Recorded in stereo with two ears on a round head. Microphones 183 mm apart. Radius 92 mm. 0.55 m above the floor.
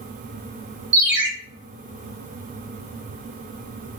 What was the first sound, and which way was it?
A ringtone, 55° right (ahead or behind).